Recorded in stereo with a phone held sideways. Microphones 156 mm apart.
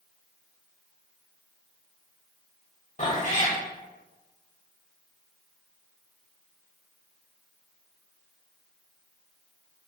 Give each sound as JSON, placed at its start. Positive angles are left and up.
{"t": 3.0, "sound": "a cat meowing", "side_deg": 50, "distance_m": 0.7}